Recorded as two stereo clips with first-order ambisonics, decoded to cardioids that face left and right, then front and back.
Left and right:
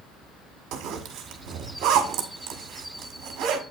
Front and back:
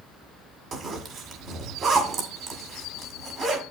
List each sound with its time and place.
0.7 s a zipper: 125° right, 1.8 m